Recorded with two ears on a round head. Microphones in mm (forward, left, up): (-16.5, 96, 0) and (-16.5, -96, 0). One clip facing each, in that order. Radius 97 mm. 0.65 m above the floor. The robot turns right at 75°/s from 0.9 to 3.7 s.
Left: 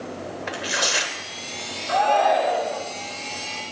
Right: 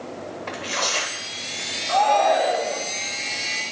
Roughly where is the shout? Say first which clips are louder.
Even; behind left.